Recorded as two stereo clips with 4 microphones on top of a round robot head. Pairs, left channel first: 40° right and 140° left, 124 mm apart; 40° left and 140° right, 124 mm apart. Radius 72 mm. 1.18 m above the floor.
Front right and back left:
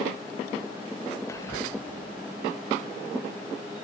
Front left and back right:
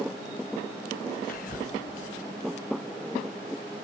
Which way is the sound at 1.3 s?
25° left.